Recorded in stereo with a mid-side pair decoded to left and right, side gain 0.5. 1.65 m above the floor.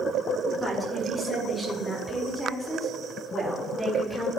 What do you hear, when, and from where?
0.6 s a woman speaking: 5° left, 5.5 m; by 4.3 s 25° left, 4.5 m